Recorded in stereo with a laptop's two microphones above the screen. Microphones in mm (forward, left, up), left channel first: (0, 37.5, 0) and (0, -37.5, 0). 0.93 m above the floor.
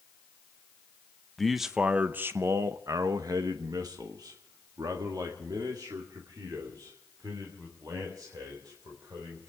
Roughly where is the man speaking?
Centre.